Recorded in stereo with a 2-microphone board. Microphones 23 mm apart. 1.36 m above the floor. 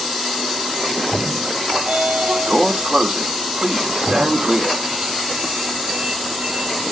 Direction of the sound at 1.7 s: 55° right (ahead or behind).